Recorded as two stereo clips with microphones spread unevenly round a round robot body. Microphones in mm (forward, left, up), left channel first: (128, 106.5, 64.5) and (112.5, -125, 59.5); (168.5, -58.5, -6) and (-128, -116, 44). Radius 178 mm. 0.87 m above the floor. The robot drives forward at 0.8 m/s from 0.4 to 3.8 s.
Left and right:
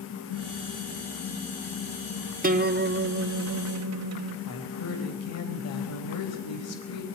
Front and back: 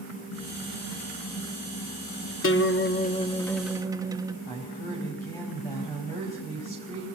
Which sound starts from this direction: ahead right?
A guitar, at 2.4 s.